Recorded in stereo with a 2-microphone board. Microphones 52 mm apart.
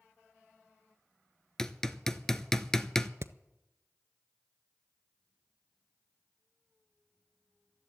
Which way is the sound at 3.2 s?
50° right (ahead or behind).